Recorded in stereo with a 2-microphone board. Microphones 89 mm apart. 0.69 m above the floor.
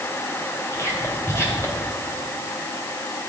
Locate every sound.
0.7 s whispering: 30° left (ahead or behind), 3.5 m